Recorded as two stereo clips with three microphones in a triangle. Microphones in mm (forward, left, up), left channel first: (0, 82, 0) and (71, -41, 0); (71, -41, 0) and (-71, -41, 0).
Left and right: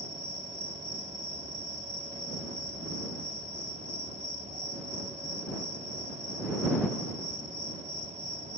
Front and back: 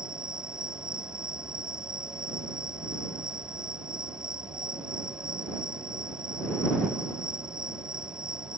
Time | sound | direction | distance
0.0 | an insect | 95° right | ?